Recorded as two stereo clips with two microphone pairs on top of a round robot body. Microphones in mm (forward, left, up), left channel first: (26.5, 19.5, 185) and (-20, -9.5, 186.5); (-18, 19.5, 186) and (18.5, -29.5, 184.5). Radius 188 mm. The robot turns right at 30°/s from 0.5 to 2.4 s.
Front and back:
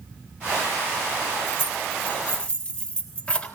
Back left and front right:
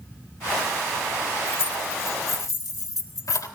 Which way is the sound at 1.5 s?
70° left.